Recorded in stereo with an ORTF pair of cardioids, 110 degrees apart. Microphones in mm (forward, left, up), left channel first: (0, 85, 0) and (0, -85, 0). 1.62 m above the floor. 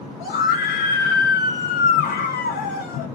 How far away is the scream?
About 1.8 m.